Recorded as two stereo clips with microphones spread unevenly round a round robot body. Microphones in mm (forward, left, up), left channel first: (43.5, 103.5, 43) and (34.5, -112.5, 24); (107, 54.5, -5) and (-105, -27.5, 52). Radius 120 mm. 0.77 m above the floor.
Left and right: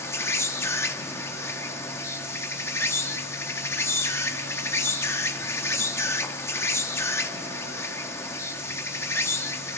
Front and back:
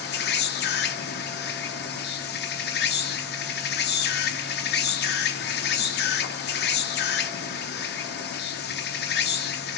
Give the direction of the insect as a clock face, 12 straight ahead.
12 o'clock.